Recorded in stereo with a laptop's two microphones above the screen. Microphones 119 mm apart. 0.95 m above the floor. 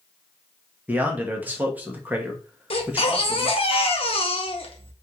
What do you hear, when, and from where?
0.9 s a man speaking: 15° right (ahead or behind), 0.7 m
2.7 s a baby crying: 50° left (ahead or behind), 0.7 m